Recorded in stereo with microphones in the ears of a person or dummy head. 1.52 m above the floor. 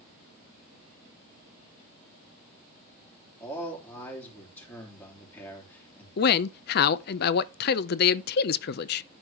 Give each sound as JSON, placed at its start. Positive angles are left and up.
{"t": 3.4, "sound": "a man speaking", "side_deg": 15, "distance_m": 3.5}
{"t": 6.2, "sound": "a man speaking", "side_deg": 55, "distance_m": 0.5}